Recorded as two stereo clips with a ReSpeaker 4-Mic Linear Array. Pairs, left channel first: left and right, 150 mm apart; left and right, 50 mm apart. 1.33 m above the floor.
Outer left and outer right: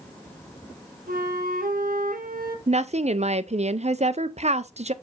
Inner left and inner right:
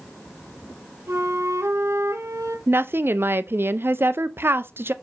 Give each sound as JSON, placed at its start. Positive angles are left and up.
{"t": 1.1, "sound": "a flute", "side_deg": -70, "distance_m": 1.4}
{"t": 2.7, "sound": "a woman speaking", "side_deg": -50, "distance_m": 0.6}